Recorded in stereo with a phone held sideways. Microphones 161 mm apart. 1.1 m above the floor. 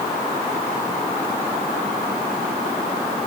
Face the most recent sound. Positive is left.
No sound to turn to.